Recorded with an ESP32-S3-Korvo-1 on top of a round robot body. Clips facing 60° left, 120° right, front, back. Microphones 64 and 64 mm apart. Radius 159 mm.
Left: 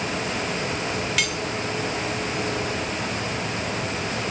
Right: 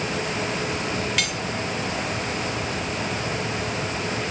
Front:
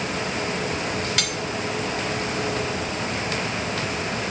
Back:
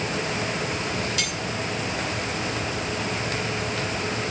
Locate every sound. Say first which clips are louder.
1.2 s cutlery clinking: left 1 dB, front 2 dB; 25° right, 0.7 m